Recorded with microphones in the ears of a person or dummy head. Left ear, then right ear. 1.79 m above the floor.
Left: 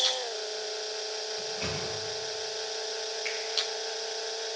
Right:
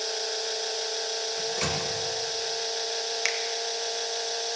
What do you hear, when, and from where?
1.4 s a microwave: 60° right (ahead or behind), 2.5 m
3.2 s a finger snap: 70° right (ahead or behind), 2 m